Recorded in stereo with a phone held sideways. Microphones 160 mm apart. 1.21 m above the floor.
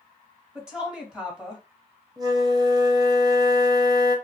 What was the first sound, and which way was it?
A woman speaking, 5° right (ahead or behind).